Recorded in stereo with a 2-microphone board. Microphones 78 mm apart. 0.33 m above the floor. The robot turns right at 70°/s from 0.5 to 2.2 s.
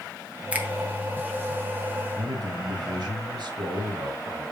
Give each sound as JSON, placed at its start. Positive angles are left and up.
{"t": 0.5, "sound": "a finger snap", "side_deg": -15, "distance_m": 2.0}
{"t": 2.2, "sound": "a man speaking", "side_deg": -70, "distance_m": 3.5}